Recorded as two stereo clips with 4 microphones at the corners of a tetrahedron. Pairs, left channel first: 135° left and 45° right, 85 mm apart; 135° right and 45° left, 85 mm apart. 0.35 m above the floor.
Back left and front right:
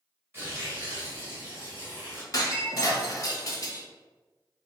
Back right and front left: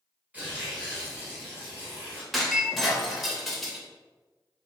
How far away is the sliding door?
I don't hear a sliding door.